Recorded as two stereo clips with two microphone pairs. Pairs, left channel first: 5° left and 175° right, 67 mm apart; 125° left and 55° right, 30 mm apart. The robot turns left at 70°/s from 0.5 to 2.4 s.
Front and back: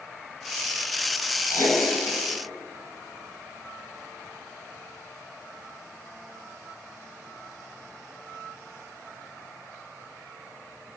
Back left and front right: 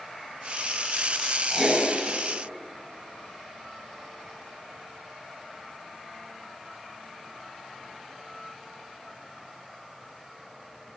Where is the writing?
60° left, 7.5 m; by 1.8 s 40° left, 7.5 m.